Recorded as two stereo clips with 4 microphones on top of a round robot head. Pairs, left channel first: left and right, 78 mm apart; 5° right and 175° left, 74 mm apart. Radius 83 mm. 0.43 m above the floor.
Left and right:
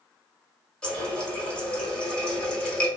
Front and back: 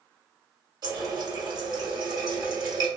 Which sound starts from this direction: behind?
A running tap, at 0.8 s.